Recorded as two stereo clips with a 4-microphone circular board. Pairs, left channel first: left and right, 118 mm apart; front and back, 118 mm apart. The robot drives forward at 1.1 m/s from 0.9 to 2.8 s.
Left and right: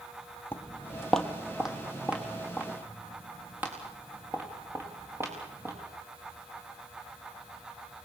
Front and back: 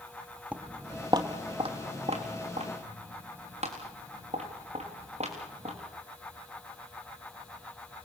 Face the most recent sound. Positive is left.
turn(degrees=-160)